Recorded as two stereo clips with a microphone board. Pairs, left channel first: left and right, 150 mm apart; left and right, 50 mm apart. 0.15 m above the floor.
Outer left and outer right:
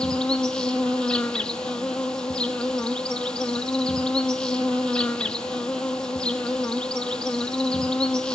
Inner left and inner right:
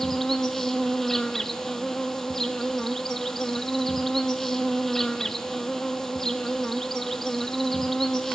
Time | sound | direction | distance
0.0 | an insect | 5° left (ahead or behind) | 1.2 m